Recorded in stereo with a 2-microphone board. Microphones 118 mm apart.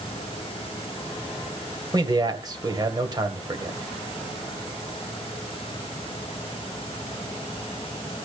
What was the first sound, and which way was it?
A man speaking, 35° right (ahead or behind).